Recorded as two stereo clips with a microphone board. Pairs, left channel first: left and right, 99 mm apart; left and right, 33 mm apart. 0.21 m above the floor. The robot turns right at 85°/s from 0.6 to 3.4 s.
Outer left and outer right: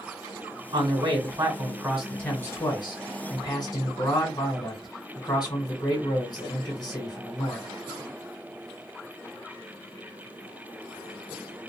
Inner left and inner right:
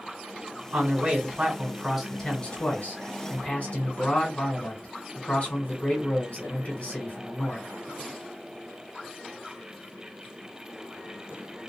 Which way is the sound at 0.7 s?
110° right.